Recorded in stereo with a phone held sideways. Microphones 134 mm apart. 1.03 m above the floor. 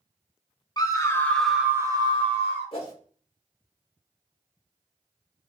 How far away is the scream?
About 1.1 m.